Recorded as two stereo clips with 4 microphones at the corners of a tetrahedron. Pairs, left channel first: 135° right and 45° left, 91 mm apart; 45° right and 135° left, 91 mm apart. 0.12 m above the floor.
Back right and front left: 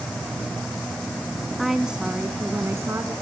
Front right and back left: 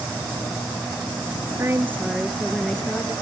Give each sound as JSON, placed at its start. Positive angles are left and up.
{"t": 1.6, "sound": "a woman speaking", "azimuth_deg": 135, "distance_m": 1.3}